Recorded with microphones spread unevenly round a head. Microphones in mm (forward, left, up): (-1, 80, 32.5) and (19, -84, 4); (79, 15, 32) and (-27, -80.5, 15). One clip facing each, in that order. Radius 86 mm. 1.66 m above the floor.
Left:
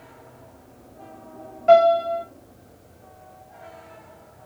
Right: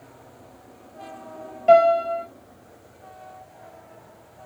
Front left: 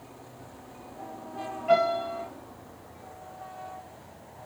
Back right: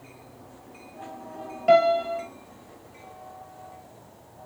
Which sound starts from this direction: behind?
A piano, at 1.7 s.